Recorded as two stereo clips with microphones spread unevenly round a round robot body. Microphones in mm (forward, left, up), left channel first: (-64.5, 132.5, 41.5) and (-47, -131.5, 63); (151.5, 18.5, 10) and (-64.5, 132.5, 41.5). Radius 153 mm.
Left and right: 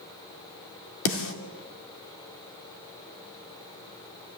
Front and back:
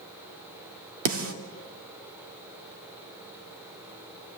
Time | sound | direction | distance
1.1 | a snare drum | 125° left | 2.5 m